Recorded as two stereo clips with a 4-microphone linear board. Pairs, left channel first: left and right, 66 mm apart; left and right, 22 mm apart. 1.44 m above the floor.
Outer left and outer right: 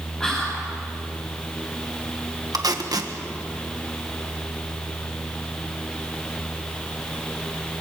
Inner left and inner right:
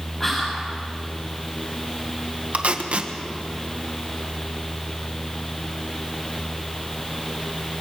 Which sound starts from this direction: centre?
Whispering, at 0.2 s.